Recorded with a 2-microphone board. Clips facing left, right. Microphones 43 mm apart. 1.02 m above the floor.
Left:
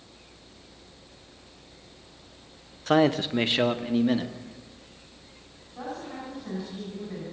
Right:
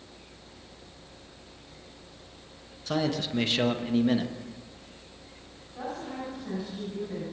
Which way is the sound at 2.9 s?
45° left (ahead or behind).